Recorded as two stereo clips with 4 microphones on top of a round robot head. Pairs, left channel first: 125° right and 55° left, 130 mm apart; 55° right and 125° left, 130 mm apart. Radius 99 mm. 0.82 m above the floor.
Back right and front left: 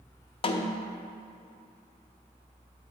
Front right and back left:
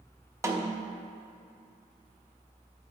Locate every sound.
0.4 s a snare drum: 170° right, 0.6 m